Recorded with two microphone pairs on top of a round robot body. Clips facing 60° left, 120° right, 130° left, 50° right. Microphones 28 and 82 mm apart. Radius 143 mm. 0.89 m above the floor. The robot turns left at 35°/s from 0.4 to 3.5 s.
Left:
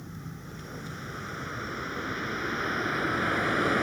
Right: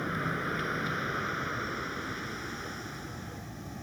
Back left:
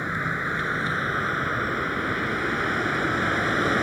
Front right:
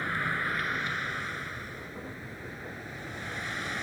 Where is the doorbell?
I don't hear a doorbell.